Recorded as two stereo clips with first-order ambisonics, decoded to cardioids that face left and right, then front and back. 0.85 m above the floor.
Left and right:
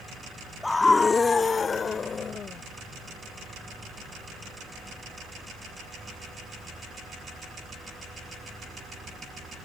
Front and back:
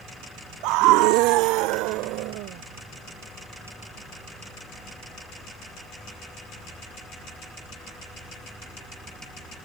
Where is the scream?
170° left; by 2.6 s 155° left.